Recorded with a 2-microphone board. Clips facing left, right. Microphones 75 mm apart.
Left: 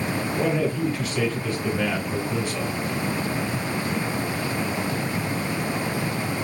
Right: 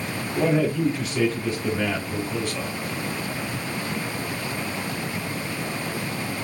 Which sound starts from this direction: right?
A man speaking, at 0.3 s.